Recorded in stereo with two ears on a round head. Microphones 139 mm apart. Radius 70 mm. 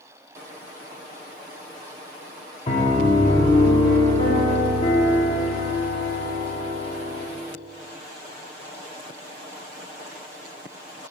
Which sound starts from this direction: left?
A piano, at 2.7 s.